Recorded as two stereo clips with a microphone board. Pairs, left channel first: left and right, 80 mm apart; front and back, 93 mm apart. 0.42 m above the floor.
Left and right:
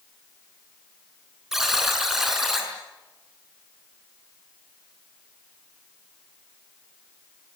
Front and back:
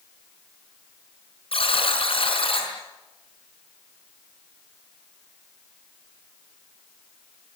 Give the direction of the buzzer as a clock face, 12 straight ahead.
12 o'clock.